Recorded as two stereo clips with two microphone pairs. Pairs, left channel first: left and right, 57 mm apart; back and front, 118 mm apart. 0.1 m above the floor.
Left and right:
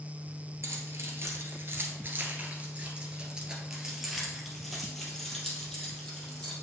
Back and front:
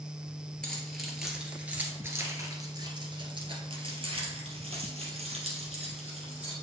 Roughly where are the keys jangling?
Right.